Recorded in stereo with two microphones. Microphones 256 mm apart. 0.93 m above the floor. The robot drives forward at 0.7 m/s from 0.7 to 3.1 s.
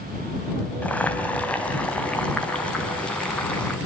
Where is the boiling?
5° left (ahead or behind), 3 m.